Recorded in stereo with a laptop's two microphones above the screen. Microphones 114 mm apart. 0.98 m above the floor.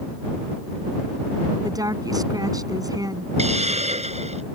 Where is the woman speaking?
30° right (ahead or behind).